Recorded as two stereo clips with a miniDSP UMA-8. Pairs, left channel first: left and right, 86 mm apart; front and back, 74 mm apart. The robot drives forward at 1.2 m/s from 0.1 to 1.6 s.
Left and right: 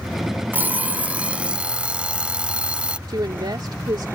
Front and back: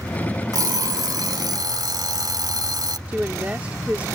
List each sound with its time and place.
0.5 s an alarm clock: 155° right; by 3.0 s 165° right
3.1 s a woman speaking: 110° right